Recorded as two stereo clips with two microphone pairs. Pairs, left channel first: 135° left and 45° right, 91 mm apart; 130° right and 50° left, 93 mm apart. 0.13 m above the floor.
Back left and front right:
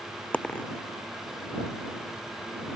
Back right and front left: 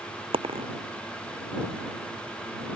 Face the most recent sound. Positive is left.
turn(degrees=60)